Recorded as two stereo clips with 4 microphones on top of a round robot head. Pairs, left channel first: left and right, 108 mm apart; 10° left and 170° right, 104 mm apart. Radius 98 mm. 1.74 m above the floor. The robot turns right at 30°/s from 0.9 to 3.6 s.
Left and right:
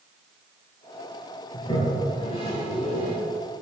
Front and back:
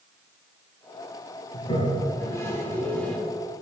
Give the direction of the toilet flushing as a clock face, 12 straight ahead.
11 o'clock.